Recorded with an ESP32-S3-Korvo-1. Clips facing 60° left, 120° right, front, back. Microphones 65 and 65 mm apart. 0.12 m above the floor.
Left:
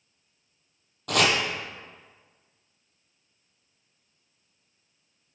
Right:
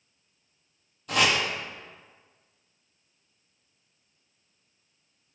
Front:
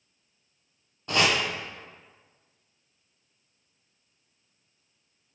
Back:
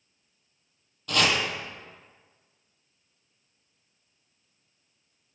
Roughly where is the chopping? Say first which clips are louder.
Left 1 dB, front 1 dB; ahead left.